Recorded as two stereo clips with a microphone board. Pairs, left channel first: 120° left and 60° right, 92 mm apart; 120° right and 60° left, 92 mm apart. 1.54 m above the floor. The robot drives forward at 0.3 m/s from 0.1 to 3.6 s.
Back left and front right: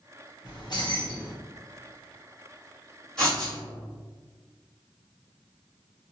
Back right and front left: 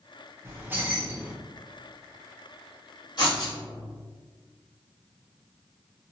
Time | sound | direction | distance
0.5 | keys jangling | 110° left | 0.7 m
3.2 | writing | 160° right | 1.6 m